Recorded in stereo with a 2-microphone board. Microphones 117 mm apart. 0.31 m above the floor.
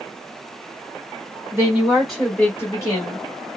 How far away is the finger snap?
No finger snap in this recording.